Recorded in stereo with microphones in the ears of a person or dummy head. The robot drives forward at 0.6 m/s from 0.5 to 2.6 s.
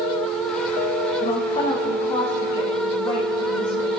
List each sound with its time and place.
1.2 s a woman speaking: 35° left (ahead or behind), 1.0 m; by 3.9 s 20° left (ahead or behind), 1.8 m